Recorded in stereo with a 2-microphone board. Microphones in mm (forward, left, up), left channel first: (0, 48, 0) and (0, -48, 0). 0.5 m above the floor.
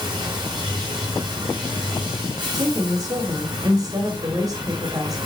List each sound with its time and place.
0.0 s running water: 45° right (ahead or behind), 4.5 m
2.5 s a woman speaking: 40° right (ahead or behind), 1.6 m